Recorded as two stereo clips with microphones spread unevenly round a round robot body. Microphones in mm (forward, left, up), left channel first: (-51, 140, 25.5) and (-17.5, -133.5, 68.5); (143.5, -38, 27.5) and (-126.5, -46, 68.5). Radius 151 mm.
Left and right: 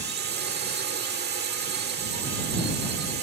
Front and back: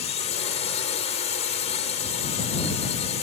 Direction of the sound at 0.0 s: 40° right.